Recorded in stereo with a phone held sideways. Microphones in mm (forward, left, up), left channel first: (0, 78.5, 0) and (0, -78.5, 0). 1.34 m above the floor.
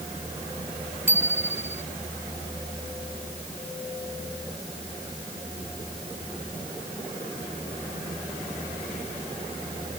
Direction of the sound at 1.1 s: 15° right (ahead or behind).